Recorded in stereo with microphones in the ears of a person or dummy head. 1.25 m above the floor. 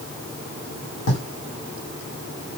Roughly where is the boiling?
No boiling in this recording.